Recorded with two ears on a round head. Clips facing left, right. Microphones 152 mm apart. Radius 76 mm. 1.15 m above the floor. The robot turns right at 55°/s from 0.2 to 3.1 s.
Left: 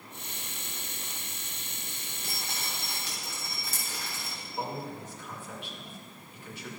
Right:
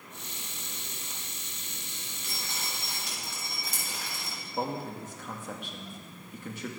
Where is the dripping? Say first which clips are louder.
Left 1 dB; 35° left (ahead or behind), 7.5 m; by 4.4 s 15° right (ahead or behind), 7.5 m.